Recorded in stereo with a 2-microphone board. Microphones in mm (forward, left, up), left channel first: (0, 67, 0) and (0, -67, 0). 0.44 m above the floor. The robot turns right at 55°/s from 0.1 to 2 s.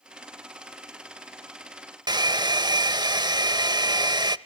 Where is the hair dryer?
30° right (ahead or behind), 0.6 m.